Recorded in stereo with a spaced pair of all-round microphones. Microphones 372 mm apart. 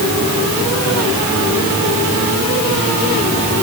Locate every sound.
Only background noise.